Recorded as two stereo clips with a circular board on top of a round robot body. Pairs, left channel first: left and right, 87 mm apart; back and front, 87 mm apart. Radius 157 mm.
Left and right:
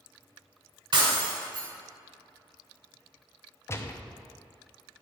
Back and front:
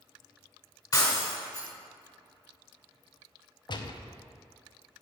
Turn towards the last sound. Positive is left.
turn(degrees=150)